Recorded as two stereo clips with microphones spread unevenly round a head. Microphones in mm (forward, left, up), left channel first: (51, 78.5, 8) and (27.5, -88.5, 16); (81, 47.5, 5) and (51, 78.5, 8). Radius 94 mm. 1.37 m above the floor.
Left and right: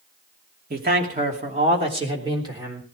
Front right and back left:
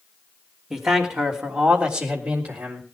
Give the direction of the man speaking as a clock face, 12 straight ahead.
5 o'clock.